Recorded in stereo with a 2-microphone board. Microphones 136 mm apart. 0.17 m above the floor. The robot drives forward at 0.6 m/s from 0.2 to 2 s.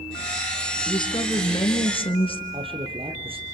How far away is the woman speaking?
About 2.5 m.